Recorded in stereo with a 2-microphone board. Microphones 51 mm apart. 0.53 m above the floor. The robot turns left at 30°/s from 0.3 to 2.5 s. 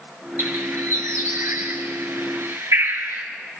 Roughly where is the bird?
Right.